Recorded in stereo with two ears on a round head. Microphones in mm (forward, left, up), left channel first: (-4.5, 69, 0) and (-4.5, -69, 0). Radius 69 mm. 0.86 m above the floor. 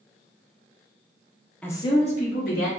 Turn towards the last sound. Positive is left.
turn(degrees=65)  # may be behind; listen again after turning